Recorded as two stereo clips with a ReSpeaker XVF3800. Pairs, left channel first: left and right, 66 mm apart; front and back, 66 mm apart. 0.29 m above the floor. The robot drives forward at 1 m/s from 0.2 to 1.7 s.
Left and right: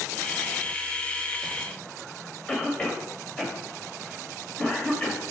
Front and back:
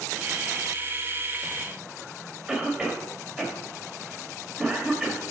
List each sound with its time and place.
2.5 s a cough: 125° left, 1.5 m